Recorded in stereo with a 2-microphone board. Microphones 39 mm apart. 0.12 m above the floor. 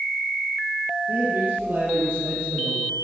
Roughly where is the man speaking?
Right.